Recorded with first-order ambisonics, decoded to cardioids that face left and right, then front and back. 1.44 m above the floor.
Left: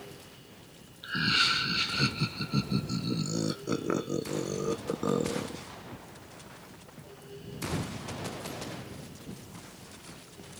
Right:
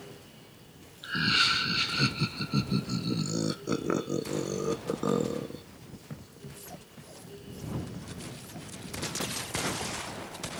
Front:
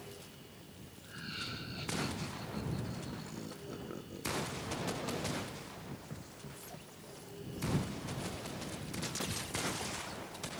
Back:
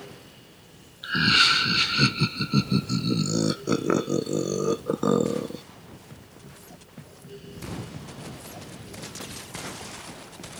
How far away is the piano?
I don't hear a piano.